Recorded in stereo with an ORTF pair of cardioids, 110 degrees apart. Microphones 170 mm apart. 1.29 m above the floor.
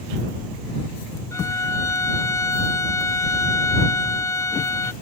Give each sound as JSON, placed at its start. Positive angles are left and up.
{"t": 1.3, "sound": "a violin", "azimuth_deg": 20}